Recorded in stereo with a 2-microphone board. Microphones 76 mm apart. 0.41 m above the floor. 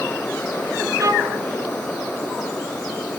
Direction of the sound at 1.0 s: 45° right (ahead or behind).